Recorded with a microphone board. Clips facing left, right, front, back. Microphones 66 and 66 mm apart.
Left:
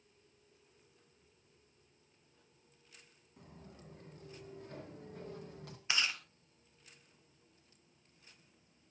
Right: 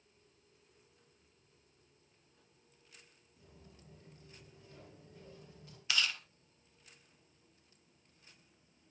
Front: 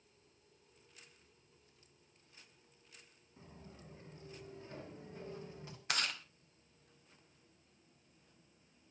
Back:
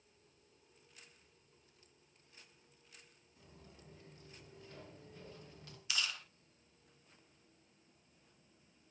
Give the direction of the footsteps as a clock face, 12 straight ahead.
10 o'clock.